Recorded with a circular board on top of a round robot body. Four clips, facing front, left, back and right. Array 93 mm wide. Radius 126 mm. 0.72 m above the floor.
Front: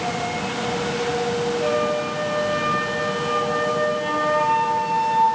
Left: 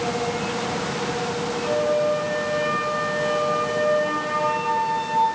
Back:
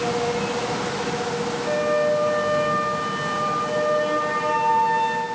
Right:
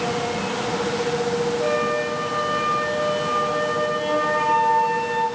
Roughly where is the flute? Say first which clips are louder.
Left 1 dB, even; ahead right.